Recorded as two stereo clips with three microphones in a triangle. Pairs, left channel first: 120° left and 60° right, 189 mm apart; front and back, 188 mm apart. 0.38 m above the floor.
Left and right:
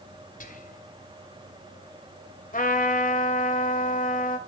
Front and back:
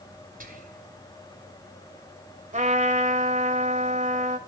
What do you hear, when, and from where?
0.4 s whispering: 150° left, 2.5 m
2.5 s a trumpet: 145° left, 1.8 m